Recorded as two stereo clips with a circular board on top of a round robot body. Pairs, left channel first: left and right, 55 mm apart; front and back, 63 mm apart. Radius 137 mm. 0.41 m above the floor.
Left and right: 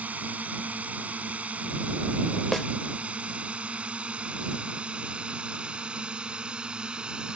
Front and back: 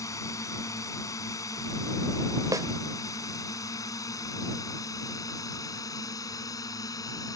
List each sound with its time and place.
0.0 s a drone: 30° right; by 7.4 s 20° right
2.5 s a snare drum: 175° left